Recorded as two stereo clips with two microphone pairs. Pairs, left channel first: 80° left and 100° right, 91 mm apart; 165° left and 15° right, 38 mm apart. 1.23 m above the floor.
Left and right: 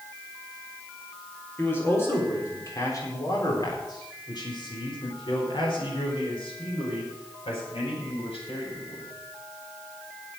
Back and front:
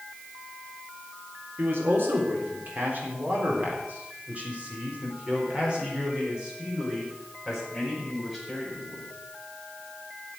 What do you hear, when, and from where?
1.6 s a man speaking: 10° left, 4 m; by 9.1 s 70° left, 6 m